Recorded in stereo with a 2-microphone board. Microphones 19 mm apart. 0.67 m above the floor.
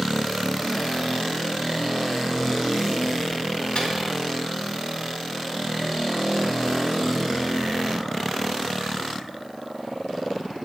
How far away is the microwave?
About 1.8 m.